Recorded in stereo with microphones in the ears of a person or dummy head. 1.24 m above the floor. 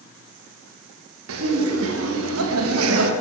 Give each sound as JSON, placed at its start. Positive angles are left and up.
{"t": 1.3, "sound": "laughter", "side_deg": -80, "distance_m": 1.5}